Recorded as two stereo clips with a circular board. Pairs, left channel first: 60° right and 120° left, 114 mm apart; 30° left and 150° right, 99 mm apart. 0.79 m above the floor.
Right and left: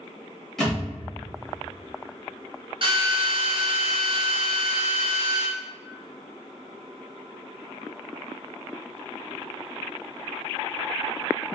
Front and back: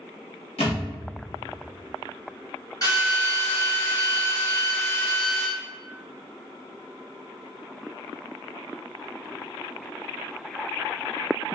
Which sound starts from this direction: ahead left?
A thud, at 0.6 s.